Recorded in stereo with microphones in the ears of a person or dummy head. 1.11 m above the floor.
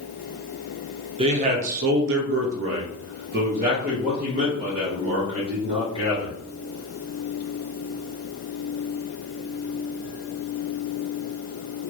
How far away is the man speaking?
About 0.8 m.